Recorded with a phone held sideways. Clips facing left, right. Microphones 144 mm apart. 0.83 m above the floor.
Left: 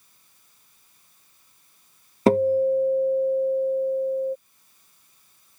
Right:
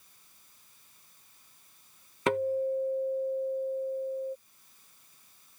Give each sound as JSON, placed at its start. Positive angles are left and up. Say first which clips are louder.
{"t": 2.3, "sound": "a guitar", "louder": "left 10 dB", "side_deg": 35}